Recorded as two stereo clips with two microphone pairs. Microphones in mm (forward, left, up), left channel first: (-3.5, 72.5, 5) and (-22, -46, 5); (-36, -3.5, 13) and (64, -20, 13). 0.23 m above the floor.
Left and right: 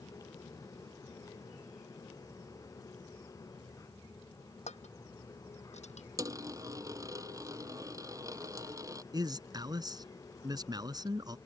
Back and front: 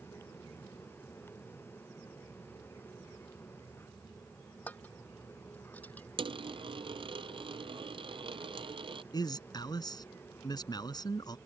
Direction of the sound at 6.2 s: 40° right.